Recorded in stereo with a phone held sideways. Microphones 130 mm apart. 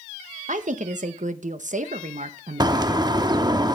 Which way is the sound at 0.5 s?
65° right (ahead or behind).